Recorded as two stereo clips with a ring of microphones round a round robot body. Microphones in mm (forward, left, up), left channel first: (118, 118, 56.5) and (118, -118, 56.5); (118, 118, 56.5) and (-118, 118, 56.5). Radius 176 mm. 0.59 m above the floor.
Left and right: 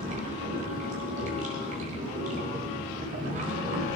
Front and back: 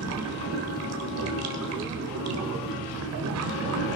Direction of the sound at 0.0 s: 155° right.